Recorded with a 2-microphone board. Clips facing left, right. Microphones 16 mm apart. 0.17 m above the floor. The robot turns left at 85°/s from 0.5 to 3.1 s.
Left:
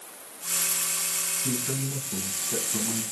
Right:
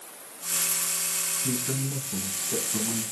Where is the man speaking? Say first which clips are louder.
Even; 30° left (ahead or behind), 1.8 m; by 3.0 s 20° right (ahead or behind), 1.8 m.